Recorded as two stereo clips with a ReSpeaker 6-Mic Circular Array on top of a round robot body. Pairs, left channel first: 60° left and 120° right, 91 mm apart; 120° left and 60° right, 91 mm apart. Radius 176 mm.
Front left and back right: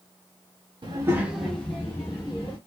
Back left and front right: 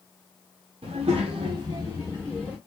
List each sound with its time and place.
0.8 s a child speaking: 80° right, 0.5 m; by 2.6 s 10° left, 1.1 m